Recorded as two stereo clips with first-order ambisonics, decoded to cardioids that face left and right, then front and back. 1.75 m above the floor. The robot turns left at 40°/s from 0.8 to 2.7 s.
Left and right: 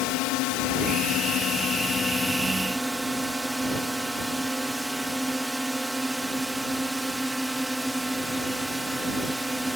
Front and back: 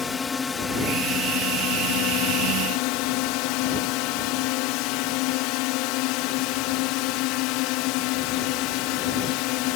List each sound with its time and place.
0.0 s a drone: 70° left; by 9.8 s 5° right